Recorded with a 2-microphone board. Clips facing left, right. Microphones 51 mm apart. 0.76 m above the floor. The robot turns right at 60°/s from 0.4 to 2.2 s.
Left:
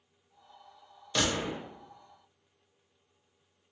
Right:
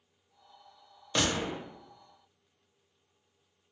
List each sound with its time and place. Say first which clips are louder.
1.1 s a gunshot: even; 15° right (ahead or behind), 0.8 m; by 1.6 s 35° right (ahead or behind), 0.8 m